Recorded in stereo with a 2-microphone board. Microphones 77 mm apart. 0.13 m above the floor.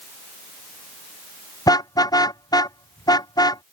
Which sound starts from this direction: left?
A car horn, at 1.7 s.